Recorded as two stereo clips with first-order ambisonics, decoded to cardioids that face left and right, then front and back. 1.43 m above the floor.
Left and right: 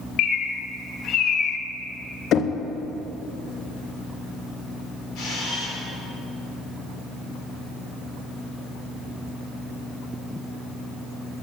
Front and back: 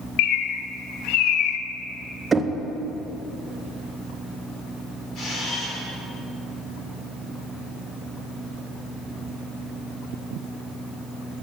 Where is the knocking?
115° left, 0.6 m.